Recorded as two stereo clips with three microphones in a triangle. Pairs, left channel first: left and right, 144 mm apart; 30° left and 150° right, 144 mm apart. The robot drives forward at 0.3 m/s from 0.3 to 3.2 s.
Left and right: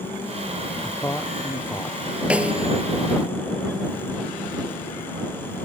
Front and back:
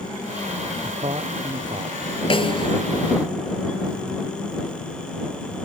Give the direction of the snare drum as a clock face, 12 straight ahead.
12 o'clock.